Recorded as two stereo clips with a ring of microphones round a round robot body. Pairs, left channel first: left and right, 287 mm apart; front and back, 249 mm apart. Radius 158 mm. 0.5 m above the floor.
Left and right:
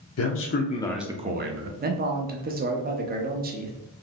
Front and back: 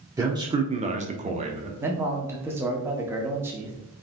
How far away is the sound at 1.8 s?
About 0.7 m.